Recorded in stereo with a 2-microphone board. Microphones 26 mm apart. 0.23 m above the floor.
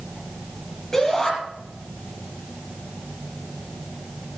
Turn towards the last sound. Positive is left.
turn(degrees=20)  # may be behind; listen again after turning